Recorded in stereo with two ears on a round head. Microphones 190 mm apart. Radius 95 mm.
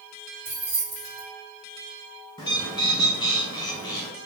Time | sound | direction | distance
0.5 | keys jangling | 10° right (ahead or behind) | 2 m
2.4 | a bird | 20° left (ahead or behind) | 0.7 m